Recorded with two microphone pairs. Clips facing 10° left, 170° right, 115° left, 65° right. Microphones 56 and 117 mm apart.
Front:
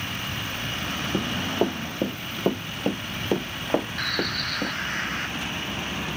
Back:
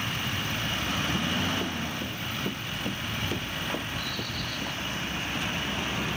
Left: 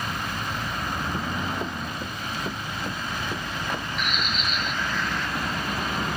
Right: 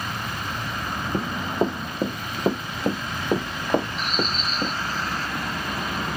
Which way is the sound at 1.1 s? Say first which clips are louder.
Front 4 dB, right 4 dB; 15° right.